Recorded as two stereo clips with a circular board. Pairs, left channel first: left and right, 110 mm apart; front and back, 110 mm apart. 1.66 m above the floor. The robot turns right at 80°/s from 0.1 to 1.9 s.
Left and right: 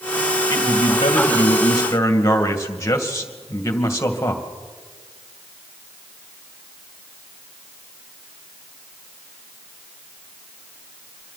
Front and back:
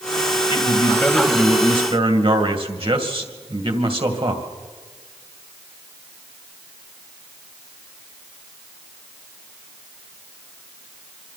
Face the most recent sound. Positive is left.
turn(degrees=150)